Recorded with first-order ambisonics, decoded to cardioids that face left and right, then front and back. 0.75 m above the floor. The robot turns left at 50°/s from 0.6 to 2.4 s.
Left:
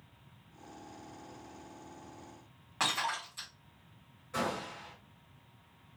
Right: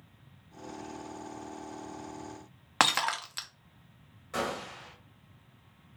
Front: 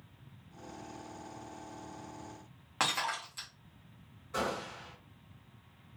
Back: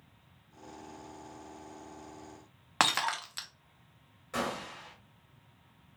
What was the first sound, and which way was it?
Breaking glass, 125° right.